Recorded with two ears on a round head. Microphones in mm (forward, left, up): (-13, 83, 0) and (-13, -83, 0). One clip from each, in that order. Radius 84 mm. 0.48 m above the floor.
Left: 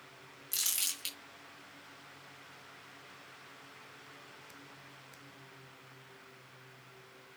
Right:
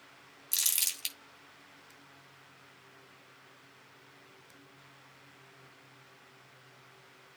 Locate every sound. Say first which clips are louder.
0.5 s crumpling: right 3 dB; 35° right (ahead or behind), 3 m